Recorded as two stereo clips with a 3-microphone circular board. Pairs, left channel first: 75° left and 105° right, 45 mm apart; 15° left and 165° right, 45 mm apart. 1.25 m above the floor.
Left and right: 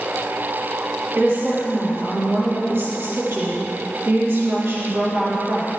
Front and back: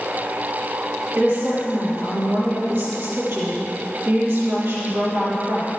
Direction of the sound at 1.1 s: 135° right.